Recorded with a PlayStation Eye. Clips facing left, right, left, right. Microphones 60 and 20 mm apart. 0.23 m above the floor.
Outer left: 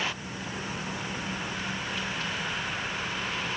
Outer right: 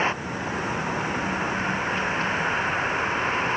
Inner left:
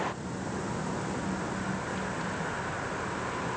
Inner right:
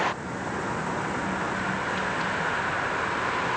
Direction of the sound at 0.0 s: 35° right (ahead or behind).